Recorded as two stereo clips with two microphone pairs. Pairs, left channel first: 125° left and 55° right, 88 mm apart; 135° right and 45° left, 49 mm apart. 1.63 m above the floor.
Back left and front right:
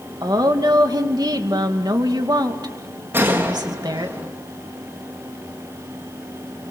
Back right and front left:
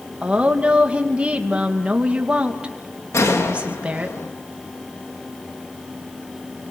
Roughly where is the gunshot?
Behind right.